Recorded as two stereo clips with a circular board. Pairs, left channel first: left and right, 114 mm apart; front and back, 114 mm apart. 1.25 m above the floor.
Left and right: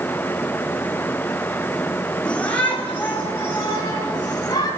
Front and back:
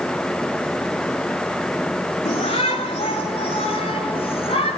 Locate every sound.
2.2 s a shout: 10° left, 3 m; by 4.7 s 25° left, 6.5 m